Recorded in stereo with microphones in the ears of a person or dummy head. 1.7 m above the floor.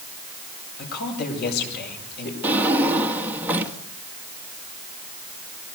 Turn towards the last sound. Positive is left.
turn(degrees=-15)  # may be behind; listen again after turning